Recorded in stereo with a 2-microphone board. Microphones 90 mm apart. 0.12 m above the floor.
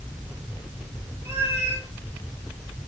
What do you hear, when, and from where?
1.2 s a cat meowing: 20° right (ahead or behind), 6 m